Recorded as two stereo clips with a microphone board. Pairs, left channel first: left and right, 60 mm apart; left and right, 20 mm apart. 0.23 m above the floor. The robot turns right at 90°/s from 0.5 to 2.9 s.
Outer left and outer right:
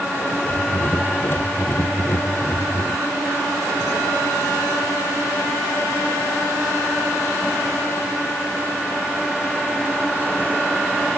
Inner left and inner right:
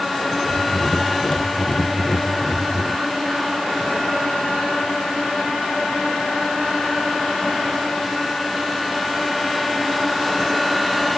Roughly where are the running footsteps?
I don't hear running footsteps.